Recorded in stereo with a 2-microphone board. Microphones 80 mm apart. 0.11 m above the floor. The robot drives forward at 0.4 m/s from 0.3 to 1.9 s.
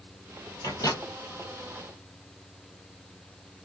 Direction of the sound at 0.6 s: 45° left (ahead or behind).